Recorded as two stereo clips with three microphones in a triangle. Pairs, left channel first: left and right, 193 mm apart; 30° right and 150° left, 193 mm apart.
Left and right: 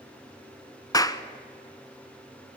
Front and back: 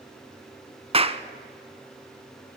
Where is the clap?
140° left, 0.9 m.